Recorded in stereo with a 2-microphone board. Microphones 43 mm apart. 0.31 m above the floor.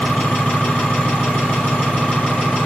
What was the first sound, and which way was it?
An engine running, 25° left (ahead or behind).